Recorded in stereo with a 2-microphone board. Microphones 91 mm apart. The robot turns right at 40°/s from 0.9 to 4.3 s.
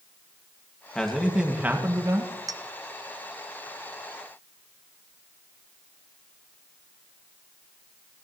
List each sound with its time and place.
0.9 s a man speaking: 170° left, 1.7 m; by 2.3 s 135° right, 1.7 m
2.5 s a clink: 40° right (ahead or behind), 0.5 m; by 2.6 s 45° right (ahead or behind), 0.5 m